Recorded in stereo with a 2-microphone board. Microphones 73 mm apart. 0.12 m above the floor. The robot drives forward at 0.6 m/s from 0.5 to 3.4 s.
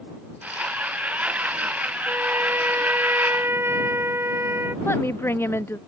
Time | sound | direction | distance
2.1 | a trumpet | 30° right (ahead or behind) | ?
4.8 | a woman speaking | 35° left (ahead or behind) | ?